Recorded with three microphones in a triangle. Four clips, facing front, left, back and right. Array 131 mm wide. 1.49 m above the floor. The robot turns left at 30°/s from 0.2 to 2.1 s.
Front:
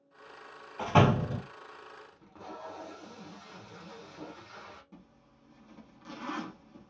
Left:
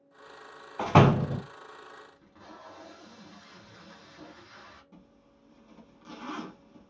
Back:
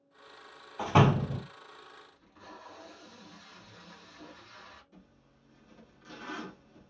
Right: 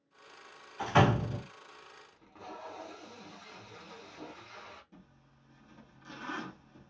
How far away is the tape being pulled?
About 1.4 m.